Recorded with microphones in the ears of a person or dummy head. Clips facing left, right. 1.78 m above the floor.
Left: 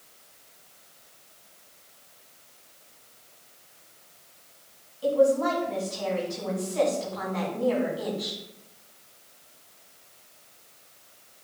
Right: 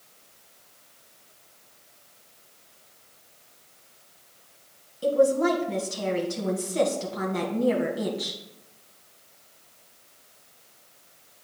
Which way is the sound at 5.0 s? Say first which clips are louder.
Right 1 dB; 35° right (ahead or behind).